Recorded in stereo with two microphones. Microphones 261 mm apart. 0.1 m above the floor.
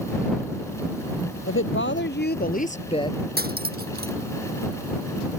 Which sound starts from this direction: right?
Cutlery clinking, at 3.4 s.